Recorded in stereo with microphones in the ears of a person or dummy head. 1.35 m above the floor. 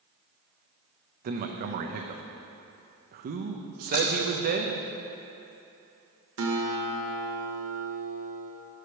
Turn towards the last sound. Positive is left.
turn(degrees=-65)  # may be behind; listen again after turning